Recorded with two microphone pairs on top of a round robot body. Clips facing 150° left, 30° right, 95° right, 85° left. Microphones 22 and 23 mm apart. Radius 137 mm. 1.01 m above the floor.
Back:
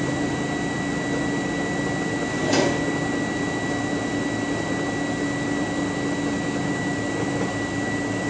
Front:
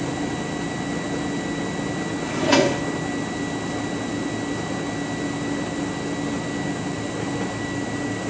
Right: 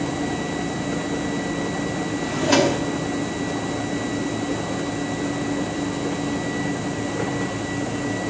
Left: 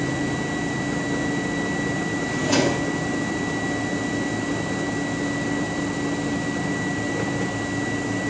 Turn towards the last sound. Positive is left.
turn(degrees=-45)